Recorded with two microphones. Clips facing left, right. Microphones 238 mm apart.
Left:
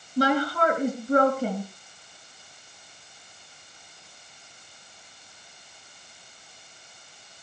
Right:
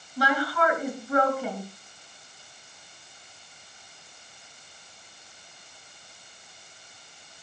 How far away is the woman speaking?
About 2.5 m.